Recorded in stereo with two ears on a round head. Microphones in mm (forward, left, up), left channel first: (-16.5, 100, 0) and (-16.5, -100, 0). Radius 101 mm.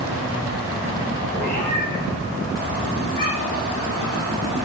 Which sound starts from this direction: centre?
A cat meowing, at 1.3 s.